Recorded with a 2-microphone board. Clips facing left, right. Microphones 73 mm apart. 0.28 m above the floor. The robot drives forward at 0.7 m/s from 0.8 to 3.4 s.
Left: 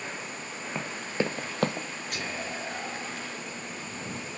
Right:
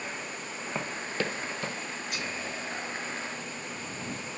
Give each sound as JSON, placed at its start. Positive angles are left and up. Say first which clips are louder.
{"t": 0.8, "sound": "running footsteps", "louder": "left 2 dB", "side_deg": -5, "distance_m": 0.9}
{"t": 2.1, "sound": "whispering", "louder": "left 3 dB", "side_deg": 55, "distance_m": 1.6}